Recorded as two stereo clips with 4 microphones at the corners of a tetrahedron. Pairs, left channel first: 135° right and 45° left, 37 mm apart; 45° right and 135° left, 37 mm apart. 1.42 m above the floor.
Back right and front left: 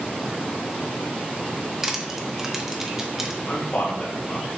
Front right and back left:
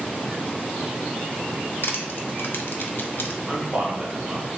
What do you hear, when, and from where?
1.8 s crushing: 35° right, 0.6 m
3.5 s a man speaking: 165° right, 1.5 m